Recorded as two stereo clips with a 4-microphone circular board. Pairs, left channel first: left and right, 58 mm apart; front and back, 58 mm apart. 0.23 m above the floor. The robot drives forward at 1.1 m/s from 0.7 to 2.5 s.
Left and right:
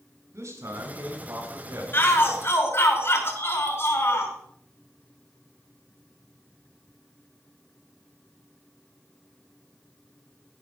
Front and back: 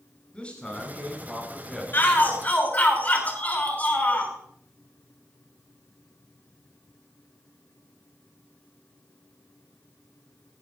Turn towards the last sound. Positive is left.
turn(degrees=60)